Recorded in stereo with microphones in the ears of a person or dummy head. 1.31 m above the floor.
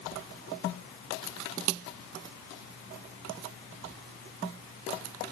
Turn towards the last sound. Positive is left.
No sound to turn to.